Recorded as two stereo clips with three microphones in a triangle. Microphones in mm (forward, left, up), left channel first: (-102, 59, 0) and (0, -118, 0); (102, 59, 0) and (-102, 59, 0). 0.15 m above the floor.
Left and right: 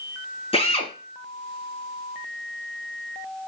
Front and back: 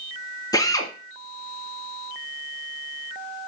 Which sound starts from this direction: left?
A drill, at 0.5 s.